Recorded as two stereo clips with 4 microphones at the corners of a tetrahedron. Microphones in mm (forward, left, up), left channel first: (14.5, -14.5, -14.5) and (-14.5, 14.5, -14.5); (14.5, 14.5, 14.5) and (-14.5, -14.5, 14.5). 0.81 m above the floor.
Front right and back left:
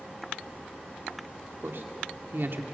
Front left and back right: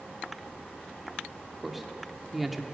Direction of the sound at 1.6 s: 140° left.